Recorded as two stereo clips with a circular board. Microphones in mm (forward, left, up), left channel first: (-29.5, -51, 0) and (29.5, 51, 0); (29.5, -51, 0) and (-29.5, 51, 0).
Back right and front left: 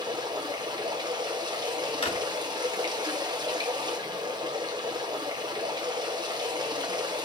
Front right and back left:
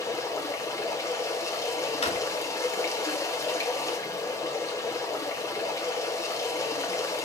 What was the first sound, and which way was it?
Running water, 5° left.